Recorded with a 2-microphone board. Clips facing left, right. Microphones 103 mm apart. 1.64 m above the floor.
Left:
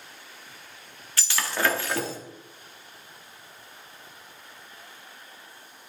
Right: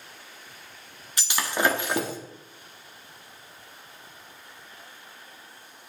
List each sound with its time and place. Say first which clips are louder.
1.2 s breaking glass: right 2 dB; 15° right (ahead or behind), 1.5 m